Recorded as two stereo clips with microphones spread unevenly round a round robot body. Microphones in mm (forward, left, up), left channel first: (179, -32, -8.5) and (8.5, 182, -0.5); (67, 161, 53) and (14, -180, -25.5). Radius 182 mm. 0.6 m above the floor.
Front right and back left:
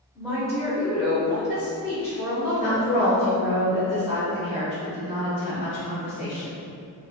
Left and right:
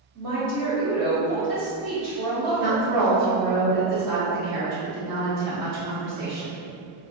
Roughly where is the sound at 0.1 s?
Behind right.